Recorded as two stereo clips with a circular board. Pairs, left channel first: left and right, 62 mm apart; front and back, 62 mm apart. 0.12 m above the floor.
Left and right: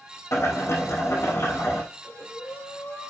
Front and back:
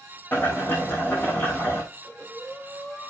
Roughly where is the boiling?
Ahead left.